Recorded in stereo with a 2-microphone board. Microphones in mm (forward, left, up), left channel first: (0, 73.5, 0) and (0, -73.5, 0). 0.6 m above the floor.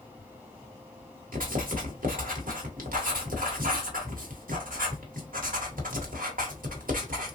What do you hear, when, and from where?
1.3 s writing: 70° right (ahead or behind), 1.0 m